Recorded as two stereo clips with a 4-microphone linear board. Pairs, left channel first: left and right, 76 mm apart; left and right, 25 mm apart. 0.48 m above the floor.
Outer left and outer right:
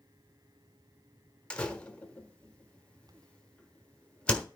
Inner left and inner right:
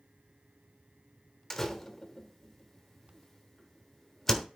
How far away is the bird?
No bird in this recording.